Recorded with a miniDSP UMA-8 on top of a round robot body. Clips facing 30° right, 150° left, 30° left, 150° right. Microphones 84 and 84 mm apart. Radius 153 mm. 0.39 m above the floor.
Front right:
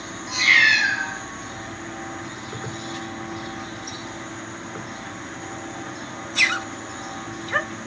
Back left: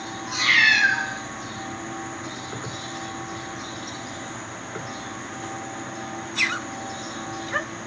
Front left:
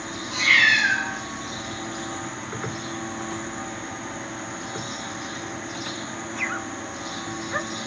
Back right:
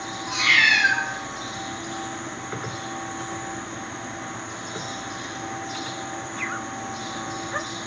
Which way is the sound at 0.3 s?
170° right.